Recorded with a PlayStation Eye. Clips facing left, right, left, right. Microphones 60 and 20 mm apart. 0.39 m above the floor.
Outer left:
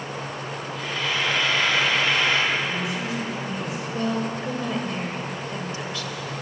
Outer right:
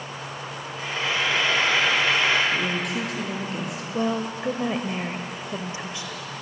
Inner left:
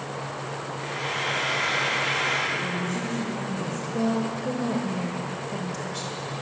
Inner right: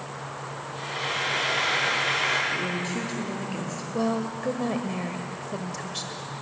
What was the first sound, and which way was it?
Frying, 30° right (ahead or behind).